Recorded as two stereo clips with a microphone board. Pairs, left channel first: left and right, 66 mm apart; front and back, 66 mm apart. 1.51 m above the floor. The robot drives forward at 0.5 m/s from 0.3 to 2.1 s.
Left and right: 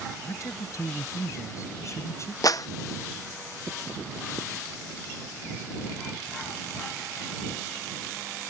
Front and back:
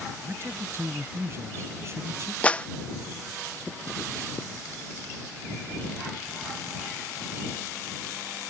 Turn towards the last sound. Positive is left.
turn(degrees=65)